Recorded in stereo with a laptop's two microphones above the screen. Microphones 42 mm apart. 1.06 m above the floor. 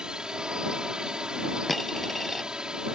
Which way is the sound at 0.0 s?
20° right (ahead or behind).